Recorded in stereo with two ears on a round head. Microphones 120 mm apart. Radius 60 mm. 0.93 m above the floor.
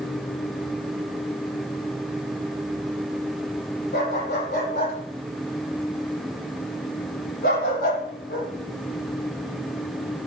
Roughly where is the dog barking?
Left.